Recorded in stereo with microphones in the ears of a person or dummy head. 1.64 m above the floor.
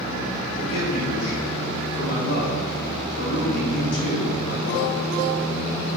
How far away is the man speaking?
About 2 m.